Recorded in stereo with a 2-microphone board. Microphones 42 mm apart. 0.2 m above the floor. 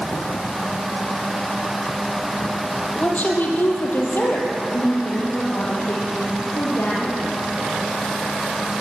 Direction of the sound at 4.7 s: 75° left (ahead or behind).